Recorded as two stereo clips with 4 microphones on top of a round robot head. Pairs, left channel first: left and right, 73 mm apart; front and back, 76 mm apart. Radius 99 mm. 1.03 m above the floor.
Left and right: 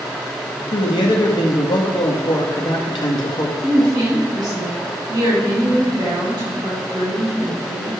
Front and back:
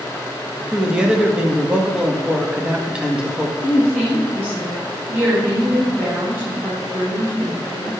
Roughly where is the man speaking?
Left.